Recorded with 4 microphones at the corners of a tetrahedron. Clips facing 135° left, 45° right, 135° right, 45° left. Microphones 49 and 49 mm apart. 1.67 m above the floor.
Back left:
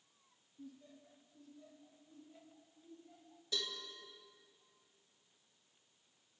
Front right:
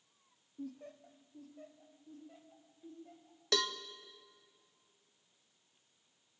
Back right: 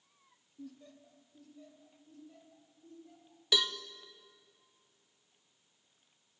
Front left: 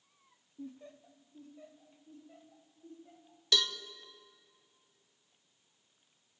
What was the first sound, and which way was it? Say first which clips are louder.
Laughter: front right 8 dB, front left 3 dB; 15° right.